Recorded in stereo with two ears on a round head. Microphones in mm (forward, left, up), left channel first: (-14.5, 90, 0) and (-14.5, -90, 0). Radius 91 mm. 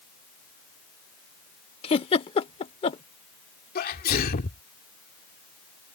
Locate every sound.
1.8 s a giggle: 30° left (ahead or behind)
3.8 s a sneeze: 50° left (ahead or behind)